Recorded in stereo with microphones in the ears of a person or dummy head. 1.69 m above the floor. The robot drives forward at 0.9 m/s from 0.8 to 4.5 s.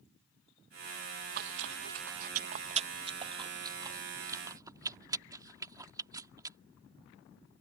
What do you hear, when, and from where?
1.1 s chewing: 45° right (ahead or behind); by 6.6 s 20° right (ahead or behind)